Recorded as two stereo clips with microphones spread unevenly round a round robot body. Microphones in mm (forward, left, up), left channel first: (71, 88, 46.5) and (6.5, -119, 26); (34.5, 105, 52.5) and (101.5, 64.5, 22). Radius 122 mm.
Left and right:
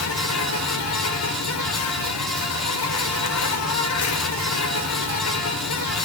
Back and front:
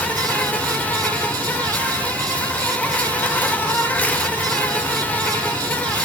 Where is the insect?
70° left, 1.5 m.